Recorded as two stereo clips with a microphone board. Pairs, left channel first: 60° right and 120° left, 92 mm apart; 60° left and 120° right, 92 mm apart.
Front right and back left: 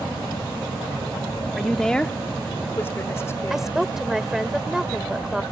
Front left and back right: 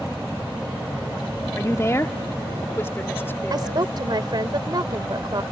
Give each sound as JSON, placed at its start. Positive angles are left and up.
{"t": 1.6, "sound": "a woman speaking", "azimuth_deg": 35}
{"t": 3.5, "sound": "a woman speaking", "azimuth_deg": -155}